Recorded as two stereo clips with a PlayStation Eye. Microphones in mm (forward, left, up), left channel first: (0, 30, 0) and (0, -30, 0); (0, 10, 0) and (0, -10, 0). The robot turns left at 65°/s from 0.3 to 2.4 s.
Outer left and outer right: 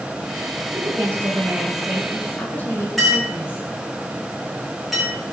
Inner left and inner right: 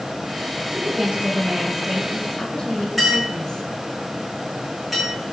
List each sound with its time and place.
0.7 s a woman speaking: 105° right, 6 m; by 3.6 s 145° left, 6 m
3.0 s a clink: centre (ahead or behind), 6.5 m